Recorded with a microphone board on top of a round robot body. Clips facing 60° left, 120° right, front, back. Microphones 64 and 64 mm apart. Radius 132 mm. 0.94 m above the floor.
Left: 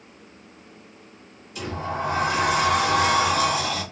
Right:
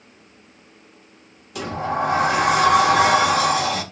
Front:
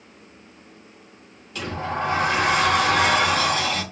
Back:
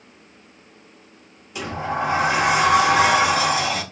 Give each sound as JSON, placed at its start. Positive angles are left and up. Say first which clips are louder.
{"t": 1.6, "sound": "a sliding door", "louder": "right 5 dB, back 2 dB", "azimuth_deg": -105, "distance_m": 1.2}